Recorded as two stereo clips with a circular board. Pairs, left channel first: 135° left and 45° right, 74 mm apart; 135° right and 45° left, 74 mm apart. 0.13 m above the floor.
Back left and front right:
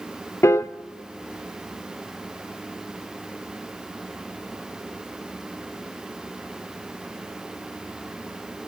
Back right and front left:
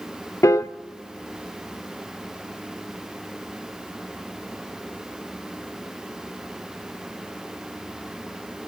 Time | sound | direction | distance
0.4 | a piano | straight behind | 0.5 m